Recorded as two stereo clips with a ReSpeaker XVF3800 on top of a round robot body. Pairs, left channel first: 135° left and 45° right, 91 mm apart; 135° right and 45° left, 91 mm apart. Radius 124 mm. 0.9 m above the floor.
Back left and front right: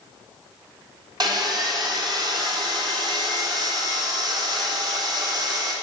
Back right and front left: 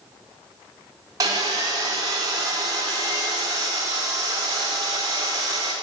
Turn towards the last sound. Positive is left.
turn(degrees=-5)